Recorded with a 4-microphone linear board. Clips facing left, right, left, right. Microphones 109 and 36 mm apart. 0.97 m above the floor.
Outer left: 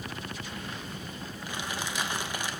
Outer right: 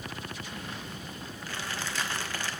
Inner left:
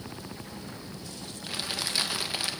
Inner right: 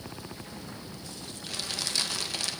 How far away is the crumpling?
About 0.9 m.